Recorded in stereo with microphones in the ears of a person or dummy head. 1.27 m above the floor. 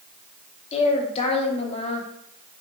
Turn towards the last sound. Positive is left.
turn(degrees=30)  # may be behind; listen again after turning